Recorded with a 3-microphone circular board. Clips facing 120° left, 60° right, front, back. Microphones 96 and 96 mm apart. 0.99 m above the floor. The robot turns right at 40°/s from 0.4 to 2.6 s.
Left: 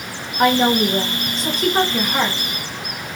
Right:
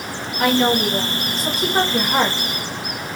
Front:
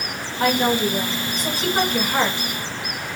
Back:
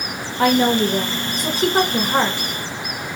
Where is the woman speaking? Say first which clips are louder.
Left 2 dB, back 3 dB; 175° left, 1.1 m; by 2.5 s 105° right, 1.1 m.